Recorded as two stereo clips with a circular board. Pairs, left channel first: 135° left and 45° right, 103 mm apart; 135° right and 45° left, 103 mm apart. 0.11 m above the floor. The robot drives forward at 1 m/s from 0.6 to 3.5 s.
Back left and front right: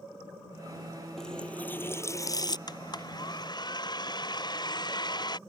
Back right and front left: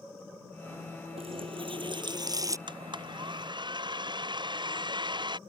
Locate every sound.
1.2 s a running tap: 50° left; by 2.6 s 100° left
2.7 s a blender: 85° left; by 5.4 s 90° left